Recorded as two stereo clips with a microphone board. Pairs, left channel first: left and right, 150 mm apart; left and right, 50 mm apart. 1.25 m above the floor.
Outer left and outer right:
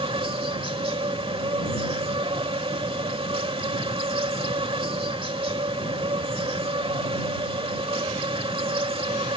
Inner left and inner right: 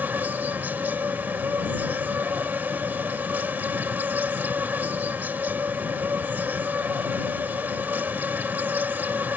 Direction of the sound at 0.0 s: 40° right (ahead or behind).